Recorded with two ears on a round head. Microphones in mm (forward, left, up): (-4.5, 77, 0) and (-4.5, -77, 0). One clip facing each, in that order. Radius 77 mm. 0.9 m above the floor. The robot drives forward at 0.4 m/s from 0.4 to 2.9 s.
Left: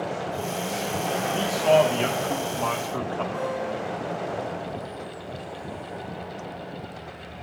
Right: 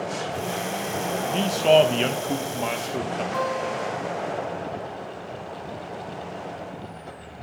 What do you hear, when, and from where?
1.3 s a man speaking: 30° right (ahead or behind), 0.8 m; by 3.2 s 25° right (ahead or behind), 1.0 m
3.3 s a guitar: 85° right, 4 m